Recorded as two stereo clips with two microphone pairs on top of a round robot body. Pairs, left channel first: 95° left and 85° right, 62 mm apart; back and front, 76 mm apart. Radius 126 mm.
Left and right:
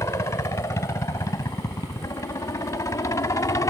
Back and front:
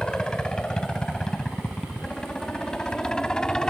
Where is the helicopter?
100° left.